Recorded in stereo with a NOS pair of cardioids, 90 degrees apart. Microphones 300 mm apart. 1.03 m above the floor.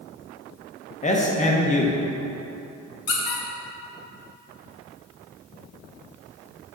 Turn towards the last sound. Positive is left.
turn(degrees=55)